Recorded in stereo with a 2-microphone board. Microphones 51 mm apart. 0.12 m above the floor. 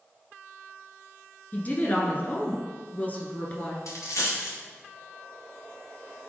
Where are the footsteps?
I don't hear footsteps.